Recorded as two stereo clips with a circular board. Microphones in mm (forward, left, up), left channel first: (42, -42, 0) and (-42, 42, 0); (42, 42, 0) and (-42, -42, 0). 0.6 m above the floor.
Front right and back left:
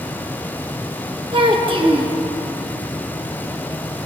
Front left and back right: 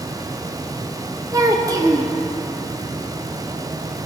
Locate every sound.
1.3 s a child speaking: 170° left, 1.0 m